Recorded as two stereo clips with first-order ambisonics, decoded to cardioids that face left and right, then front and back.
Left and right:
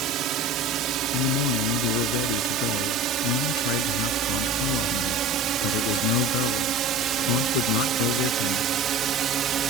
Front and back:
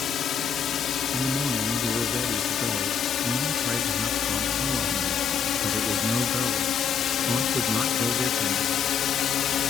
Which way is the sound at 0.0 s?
55° right.